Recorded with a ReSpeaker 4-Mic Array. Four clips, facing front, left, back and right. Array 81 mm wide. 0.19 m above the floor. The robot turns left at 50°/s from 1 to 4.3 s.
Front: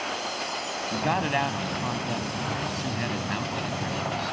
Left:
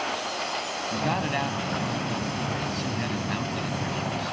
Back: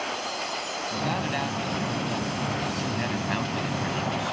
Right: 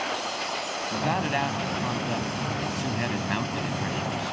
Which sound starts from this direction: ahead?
A man speaking, at 0.9 s.